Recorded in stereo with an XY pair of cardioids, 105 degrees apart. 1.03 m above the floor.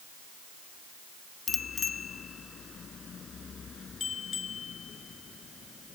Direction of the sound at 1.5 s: 50° left.